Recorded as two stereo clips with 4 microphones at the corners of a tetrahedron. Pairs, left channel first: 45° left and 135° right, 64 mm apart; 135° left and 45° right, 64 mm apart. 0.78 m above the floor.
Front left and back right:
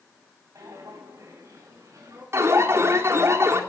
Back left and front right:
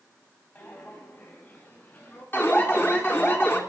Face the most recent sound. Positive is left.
turn(degrees=-175)